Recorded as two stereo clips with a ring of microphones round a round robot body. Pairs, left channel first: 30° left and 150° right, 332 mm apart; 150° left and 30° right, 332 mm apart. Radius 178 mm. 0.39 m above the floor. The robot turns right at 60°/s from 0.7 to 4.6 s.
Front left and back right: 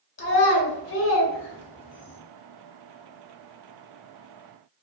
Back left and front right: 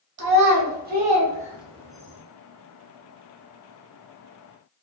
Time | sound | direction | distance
0.2 | a child speaking | straight ahead | 0.9 m